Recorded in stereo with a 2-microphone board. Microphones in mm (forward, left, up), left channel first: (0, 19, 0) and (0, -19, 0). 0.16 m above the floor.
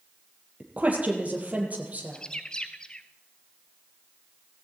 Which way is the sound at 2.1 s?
20° left (ahead or behind).